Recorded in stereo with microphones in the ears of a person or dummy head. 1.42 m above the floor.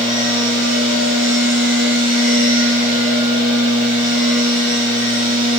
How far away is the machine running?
About 3.5 m.